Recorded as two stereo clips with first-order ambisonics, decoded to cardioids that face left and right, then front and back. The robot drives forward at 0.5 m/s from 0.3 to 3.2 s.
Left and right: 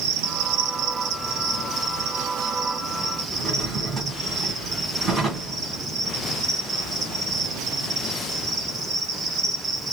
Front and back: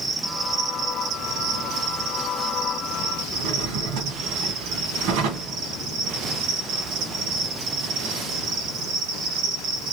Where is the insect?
105° right, 0.7 m; by 9.9 s 155° right, 1.8 m.